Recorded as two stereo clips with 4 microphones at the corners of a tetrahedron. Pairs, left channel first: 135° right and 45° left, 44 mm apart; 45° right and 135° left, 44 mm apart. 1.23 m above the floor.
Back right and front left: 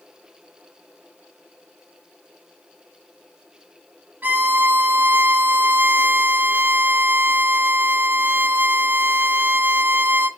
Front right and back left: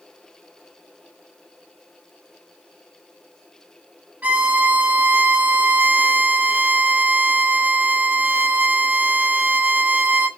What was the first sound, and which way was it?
A violin, 80° left.